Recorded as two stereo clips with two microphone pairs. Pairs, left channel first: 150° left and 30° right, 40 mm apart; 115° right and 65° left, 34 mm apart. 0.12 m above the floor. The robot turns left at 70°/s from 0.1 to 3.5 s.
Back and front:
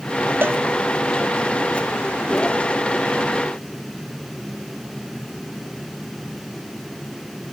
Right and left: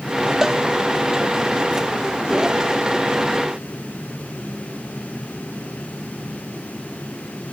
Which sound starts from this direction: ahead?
A cowbell, at 0.4 s.